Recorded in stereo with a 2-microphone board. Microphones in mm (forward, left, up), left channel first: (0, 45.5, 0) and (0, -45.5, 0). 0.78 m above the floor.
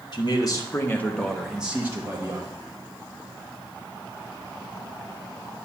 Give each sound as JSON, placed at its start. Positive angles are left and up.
{"t": 0.1, "sound": "a man speaking", "side_deg": 50, "distance_m": 1.2}